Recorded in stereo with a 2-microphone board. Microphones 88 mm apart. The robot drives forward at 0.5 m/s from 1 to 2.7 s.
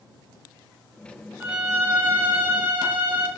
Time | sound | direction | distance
1.4 | a violin | 20° right (ahead or behind) | 0.9 m